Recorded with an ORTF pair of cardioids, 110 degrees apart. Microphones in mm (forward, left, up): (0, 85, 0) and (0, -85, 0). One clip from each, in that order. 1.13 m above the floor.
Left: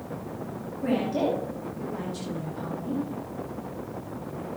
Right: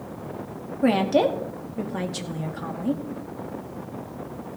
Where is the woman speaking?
70° right, 2.5 m.